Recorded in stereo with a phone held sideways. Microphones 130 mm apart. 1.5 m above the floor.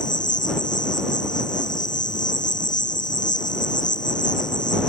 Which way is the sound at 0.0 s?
85° left.